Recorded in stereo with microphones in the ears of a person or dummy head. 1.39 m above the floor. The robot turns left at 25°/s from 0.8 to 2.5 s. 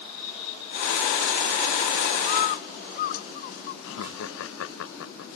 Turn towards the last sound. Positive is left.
turn(degrees=75)  # may be behind; listen again after turning